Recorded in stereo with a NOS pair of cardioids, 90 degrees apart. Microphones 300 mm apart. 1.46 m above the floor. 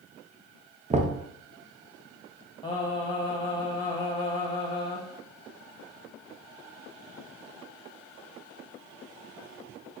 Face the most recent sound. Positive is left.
turn(degrees=15)